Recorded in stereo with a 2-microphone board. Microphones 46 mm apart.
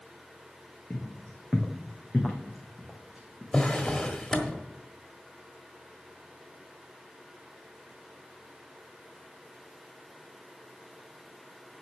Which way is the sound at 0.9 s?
25° left (ahead or behind).